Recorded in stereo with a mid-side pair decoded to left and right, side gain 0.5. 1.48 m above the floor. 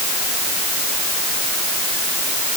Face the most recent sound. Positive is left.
No sound to turn to.